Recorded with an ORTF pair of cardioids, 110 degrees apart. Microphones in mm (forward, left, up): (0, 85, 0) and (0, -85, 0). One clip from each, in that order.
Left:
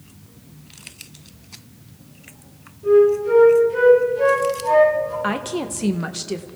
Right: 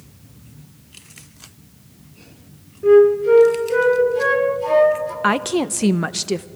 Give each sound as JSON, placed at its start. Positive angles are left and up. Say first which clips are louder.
{"t": 2.8, "sound": "a flute", "louder": "right 3 dB", "azimuth_deg": -70, "distance_m": 4.0}
{"t": 5.2, "sound": "a woman speaking", "louder": "right 6 dB", "azimuth_deg": -30, "distance_m": 0.7}